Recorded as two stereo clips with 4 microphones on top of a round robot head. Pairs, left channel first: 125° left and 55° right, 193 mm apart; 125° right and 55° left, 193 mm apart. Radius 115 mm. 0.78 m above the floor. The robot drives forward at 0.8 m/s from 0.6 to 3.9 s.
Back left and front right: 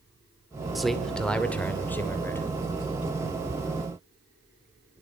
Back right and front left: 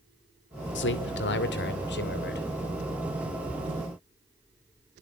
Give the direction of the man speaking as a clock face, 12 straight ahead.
5 o'clock.